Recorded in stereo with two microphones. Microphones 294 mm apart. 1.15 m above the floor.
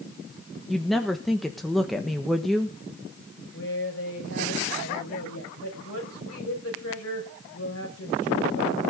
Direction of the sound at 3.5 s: 55° left (ahead or behind).